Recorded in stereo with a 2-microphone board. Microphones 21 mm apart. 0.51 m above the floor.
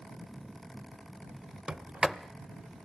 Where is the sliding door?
50° right (ahead or behind), 0.5 m.